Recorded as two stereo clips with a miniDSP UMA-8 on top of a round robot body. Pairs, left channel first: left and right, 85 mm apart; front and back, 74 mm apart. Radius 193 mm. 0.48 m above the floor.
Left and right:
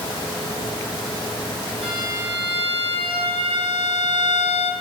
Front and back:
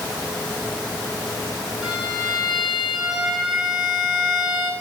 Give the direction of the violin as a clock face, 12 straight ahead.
3 o'clock.